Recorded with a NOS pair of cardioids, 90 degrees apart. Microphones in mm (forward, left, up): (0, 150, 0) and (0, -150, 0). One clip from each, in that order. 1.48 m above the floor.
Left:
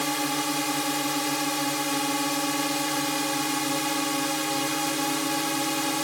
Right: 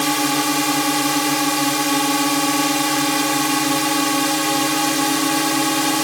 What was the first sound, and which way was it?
A drone, 55° right.